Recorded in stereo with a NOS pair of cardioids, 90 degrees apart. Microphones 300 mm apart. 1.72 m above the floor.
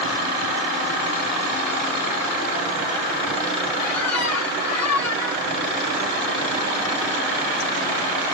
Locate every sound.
3.8 s a squeak: 60° left, 2.0 m